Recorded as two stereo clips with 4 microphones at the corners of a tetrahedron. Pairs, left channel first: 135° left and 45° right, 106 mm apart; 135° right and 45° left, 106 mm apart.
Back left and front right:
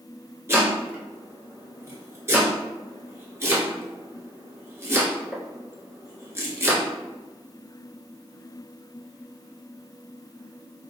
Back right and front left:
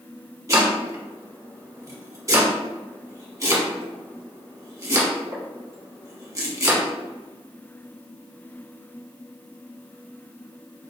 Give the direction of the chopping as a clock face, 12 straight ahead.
12 o'clock.